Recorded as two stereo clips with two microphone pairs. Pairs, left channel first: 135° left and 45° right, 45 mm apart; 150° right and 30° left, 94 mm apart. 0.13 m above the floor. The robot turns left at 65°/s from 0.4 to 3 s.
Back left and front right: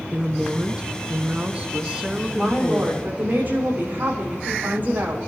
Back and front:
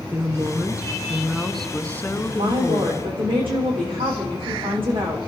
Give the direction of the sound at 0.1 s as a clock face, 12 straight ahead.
12 o'clock.